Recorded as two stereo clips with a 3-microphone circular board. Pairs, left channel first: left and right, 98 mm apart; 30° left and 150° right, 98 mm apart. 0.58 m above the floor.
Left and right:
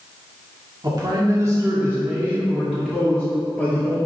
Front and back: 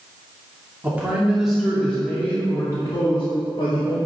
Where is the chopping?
I don't hear chopping.